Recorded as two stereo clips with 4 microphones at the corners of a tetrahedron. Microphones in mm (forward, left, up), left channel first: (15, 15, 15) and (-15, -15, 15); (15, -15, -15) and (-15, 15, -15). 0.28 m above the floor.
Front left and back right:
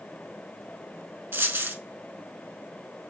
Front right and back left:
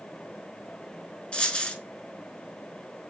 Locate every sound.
1.3 s a dropped coin: 110° right, 0.6 m